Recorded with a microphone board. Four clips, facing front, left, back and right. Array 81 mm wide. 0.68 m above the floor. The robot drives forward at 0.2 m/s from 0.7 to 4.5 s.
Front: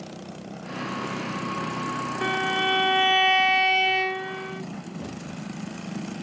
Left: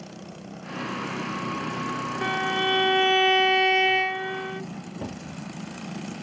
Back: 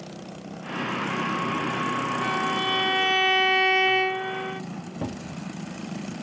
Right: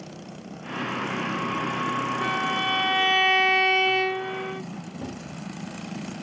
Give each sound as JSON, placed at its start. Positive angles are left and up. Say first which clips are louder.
{"t": 2.2, "sound": "a violin", "louder": "even, front 1 dB", "azimuth_deg": 15, "distance_m": 0.6}
{"t": 5.0, "sound": "a cupboard door", "louder": "left 1 dB, back 2 dB", "azimuth_deg": 165, "distance_m": 0.6}